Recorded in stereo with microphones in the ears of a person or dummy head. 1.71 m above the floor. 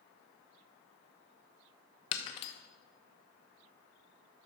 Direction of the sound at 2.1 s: 35° left (ahead or behind).